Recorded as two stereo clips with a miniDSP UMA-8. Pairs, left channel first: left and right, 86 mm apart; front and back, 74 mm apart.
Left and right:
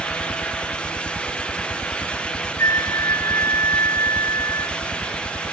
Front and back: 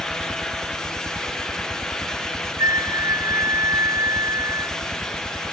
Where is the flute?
140° left.